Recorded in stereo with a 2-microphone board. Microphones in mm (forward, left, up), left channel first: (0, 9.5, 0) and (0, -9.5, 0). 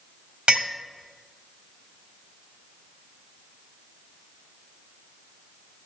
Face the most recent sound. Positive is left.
turn(degrees=-65)  # may be behind; listen again after turning